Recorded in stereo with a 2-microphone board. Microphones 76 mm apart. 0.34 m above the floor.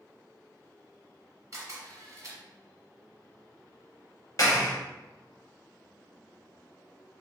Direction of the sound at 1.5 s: 45° right (ahead or behind).